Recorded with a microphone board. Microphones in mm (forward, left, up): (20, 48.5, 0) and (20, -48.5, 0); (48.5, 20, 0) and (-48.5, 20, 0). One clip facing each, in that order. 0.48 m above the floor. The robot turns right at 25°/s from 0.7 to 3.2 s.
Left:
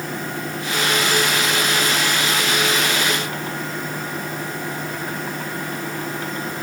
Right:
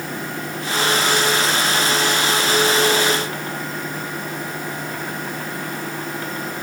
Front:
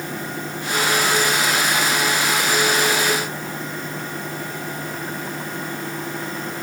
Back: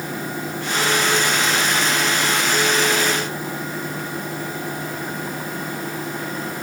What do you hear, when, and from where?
Only background noise.